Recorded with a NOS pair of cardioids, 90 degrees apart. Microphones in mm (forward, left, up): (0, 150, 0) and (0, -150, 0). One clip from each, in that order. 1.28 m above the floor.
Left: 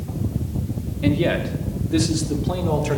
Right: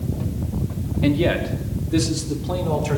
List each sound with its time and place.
1.0 s a man speaking: 5° right, 3 m; by 3.0 s 15° left, 5 m